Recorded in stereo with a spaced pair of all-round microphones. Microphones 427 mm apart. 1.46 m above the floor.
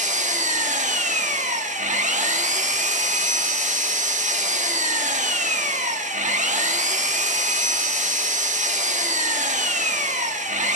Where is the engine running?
15° right (ahead or behind), 1.0 m.